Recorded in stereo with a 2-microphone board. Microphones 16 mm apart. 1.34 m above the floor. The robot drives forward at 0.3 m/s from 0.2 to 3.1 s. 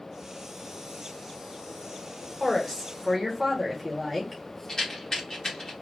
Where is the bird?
I don't hear a bird.